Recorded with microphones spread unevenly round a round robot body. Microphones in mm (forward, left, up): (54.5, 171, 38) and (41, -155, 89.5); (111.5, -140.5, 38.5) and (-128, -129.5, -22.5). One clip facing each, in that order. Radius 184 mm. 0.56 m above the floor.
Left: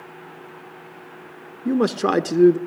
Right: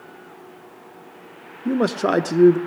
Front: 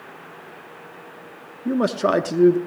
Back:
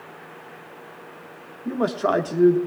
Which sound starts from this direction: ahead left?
A man speaking, at 1.6 s.